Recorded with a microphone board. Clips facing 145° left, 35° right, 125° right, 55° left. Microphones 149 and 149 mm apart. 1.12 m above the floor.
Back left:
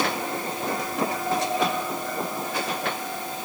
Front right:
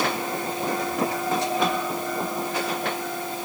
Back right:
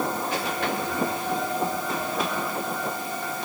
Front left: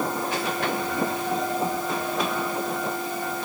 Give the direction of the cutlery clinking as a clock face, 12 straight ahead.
I don't hear cutlery clinking.